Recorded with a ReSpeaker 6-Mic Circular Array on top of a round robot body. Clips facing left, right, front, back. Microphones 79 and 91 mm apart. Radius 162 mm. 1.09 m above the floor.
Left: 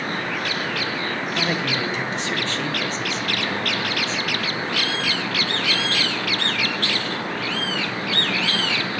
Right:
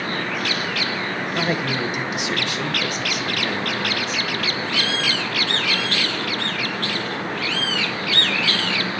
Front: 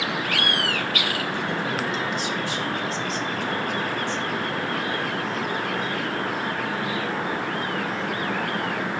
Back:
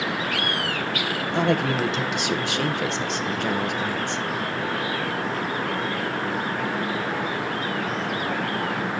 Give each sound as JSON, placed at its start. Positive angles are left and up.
{"t": 1.3, "sound": "a man speaking", "azimuth_deg": -165, "distance_m": 1.1}